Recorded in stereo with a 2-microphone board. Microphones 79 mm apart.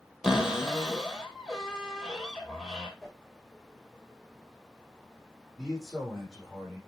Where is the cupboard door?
10° right (ahead or behind), 1.8 m.